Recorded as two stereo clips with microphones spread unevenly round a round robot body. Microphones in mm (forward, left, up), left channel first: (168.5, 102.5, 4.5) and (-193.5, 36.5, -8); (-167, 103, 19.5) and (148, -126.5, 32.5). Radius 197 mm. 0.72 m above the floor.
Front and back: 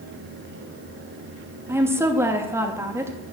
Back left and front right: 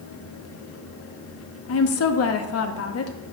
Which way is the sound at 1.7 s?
110° left.